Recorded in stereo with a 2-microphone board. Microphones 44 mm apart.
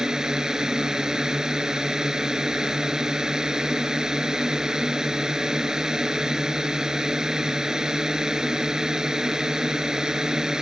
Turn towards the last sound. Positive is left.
turn(degrees=-15)  # may be behind; listen again after turning